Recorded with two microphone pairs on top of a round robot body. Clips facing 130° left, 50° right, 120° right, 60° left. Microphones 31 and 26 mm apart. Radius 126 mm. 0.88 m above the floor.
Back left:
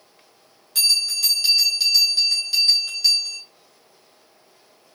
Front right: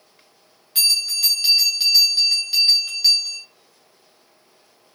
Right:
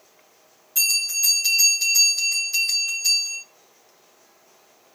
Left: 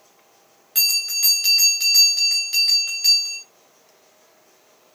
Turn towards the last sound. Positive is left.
turn(degrees=25)